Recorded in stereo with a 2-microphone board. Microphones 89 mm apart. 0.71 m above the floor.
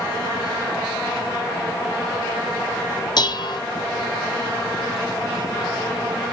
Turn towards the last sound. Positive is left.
turn(degrees=55)  # may be behind; listen again after turning